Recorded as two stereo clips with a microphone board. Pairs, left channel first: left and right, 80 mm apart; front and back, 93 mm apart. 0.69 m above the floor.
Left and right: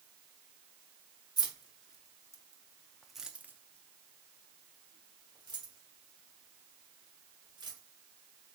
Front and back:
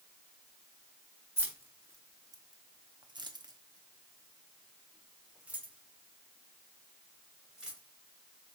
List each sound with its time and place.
1.4 s keys jangling: 115° left, 1.1 m; by 7.8 s 100° right, 2.5 m